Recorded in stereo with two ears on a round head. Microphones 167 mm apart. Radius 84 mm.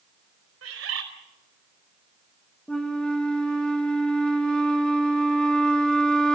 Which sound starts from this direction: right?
A bird, at 0.6 s.